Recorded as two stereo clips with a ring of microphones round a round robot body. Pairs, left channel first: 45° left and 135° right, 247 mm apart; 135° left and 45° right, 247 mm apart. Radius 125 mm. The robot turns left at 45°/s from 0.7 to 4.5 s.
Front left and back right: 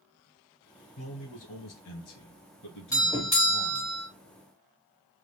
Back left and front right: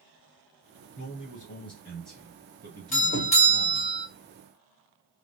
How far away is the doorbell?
About 1.4 m.